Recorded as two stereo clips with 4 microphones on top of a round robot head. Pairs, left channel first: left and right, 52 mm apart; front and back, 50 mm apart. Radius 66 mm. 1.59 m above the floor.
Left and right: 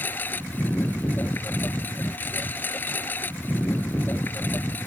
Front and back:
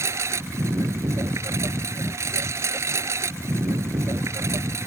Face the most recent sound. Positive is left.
turn(degrees=150)